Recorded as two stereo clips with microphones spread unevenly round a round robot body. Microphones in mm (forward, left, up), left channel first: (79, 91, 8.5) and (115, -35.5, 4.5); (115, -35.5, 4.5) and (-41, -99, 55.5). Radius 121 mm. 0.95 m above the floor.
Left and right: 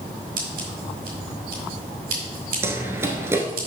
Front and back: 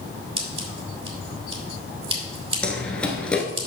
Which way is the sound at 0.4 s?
105° right.